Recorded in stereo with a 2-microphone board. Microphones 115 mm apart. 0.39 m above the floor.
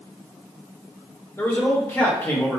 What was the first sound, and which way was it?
A man speaking, 20° left (ahead or behind).